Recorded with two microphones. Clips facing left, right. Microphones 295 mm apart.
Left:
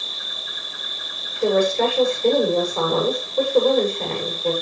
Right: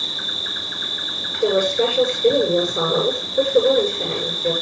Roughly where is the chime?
I don't hear a chime.